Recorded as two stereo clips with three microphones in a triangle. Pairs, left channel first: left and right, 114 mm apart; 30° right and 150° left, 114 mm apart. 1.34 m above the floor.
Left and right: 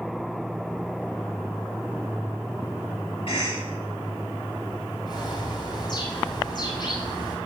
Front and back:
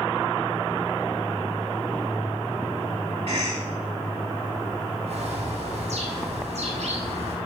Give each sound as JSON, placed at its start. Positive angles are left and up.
{"t": 3.3, "sound": "a cough", "azimuth_deg": 125, "distance_m": 2.5}
{"t": 5.1, "sound": "a bird", "azimuth_deg": 140, "distance_m": 5.5}